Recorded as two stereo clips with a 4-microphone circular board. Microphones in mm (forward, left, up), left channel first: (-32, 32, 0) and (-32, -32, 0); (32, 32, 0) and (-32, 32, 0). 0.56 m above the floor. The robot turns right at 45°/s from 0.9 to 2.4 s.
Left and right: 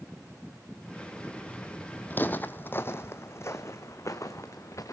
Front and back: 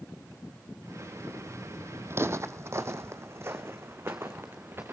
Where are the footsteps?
140° left, 0.8 m; by 4.9 s 125° left, 2 m.